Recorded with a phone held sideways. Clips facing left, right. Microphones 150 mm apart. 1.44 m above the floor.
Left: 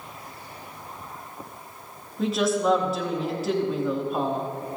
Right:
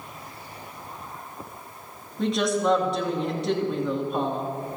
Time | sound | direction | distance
2.2 | a woman speaking | 5° left (ahead or behind) | 2.5 m